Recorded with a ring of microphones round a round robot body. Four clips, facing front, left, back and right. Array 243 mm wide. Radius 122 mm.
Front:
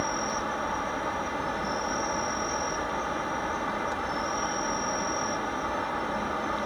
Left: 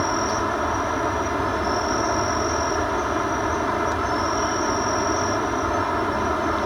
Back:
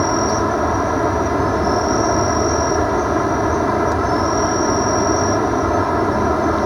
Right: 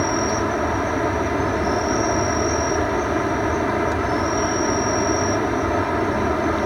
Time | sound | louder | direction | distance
0.0 | an insect | right 2 dB, back 13 dB | 160° right | ?